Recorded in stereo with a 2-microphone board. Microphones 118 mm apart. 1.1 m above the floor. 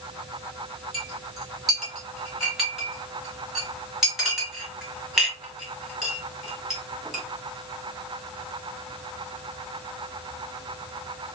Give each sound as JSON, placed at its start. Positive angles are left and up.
{"t": 0.9, "sound": "a clink", "side_deg": 0, "distance_m": 1.5}